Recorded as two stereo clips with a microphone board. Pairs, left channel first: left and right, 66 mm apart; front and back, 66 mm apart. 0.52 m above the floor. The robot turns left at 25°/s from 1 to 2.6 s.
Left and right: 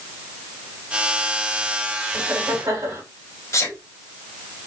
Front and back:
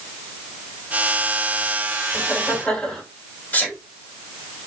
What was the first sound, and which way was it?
Laughter, 65° right.